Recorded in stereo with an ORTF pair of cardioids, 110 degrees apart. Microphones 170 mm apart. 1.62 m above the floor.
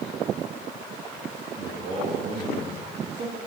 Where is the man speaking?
45° right, 2 m.